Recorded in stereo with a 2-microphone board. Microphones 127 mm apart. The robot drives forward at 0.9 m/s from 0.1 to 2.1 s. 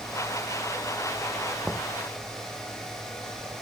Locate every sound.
1.6 s knocking: centre (ahead or behind)